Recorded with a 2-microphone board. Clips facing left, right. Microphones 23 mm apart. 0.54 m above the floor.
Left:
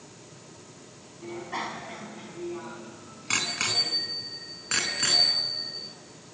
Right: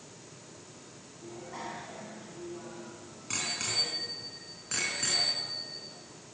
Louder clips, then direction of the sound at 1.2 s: Left 8 dB; 60° left (ahead or behind).